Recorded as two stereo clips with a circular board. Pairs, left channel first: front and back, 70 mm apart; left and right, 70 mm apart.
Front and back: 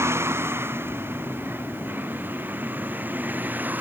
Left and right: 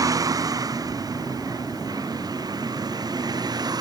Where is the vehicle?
130° right; by 3.8 s 115° right.